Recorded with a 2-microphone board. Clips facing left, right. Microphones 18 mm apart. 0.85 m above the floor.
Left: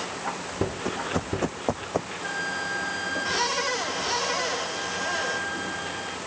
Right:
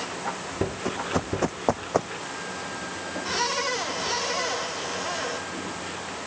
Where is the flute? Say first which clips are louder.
Left 4 dB; 40° left (ahead or behind).